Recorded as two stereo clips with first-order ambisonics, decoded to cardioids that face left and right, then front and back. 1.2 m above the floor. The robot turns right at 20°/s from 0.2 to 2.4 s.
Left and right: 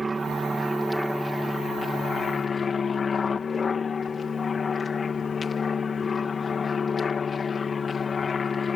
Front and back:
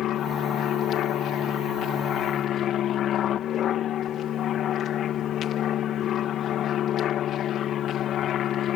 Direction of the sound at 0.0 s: 15° right.